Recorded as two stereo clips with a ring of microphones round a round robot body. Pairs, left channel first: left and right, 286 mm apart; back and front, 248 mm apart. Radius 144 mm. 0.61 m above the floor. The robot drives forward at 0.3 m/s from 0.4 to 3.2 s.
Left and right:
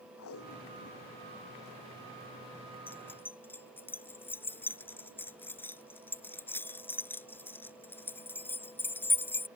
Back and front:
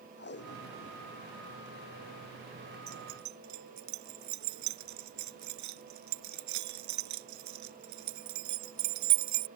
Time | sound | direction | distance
0.2 | tape being pulled | 135° left | ?
2.9 | keys jangling | 5° left | ?